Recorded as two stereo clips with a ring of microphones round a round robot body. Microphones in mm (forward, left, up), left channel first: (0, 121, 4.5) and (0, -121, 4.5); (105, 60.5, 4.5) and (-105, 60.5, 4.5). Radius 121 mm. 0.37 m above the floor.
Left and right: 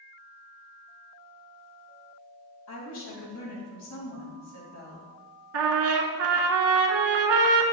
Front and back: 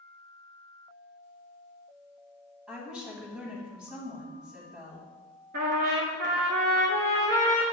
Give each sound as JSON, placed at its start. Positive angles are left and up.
{"t": 2.7, "sound": "a woman speaking", "azimuth_deg": 95, "distance_m": 2.5}
{"t": 5.5, "sound": "a trumpet", "azimuth_deg": -120, "distance_m": 0.8}